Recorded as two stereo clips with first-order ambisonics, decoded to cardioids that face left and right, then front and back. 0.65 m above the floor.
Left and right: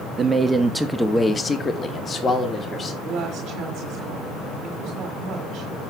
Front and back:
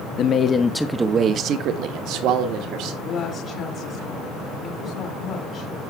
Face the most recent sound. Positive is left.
turn(degrees=-45)